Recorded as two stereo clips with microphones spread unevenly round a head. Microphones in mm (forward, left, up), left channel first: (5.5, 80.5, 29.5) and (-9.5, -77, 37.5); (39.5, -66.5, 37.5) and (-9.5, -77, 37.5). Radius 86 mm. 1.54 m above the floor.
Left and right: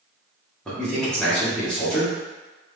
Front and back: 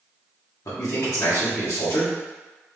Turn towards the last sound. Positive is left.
turn(degrees=0)